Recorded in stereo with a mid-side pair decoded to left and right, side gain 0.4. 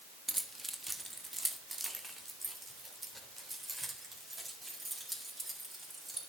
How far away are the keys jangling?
About 1.3 m.